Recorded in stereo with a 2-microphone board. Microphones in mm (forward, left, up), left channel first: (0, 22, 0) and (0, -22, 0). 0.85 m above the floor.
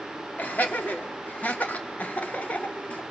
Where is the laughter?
35° left (ahead or behind), 2.5 m; by 3.0 s 25° left (ahead or behind), 1.2 m.